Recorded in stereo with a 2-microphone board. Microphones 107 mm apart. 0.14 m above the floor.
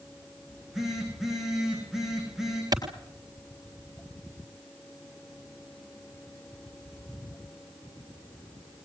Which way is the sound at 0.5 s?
5° right (ahead or behind).